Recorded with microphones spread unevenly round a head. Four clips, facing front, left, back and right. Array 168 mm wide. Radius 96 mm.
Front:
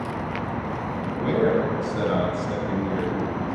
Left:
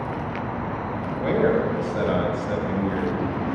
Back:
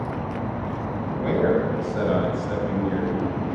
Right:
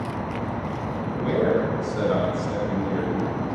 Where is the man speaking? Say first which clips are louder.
Left 1 dB, even; 90° left, 5.5 m; by 3.4 s 95° left, 7 m.